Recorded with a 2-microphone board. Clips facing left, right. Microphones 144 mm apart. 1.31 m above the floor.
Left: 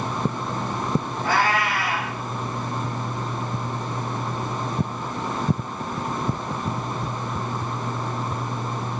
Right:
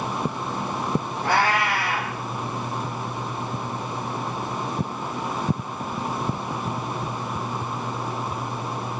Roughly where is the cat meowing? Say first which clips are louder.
Right 1 dB; right.